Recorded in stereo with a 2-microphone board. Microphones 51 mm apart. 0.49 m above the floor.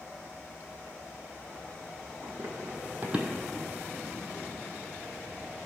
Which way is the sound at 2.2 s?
65° right (ahead or behind).